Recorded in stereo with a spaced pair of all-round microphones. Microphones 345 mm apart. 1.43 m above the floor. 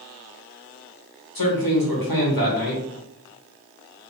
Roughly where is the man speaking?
Left.